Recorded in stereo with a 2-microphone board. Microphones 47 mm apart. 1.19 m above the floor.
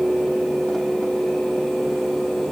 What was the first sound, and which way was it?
Only background noise.